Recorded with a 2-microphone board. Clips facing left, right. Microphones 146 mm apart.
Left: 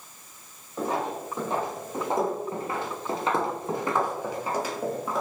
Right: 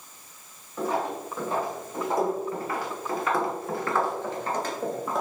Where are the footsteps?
20° left (ahead or behind), 2.0 m; by 5.2 s centre (ahead or behind), 1.2 m.